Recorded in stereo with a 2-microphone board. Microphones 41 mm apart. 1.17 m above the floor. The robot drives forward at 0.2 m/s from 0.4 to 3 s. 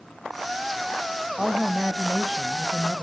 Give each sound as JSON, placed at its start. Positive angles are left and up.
{"t": 1.4, "sound": "a woman speaking", "side_deg": -20, "distance_m": 1.4}